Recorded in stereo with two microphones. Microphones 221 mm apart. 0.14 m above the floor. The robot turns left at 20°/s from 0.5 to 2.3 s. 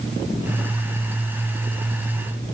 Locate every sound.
Only background noise.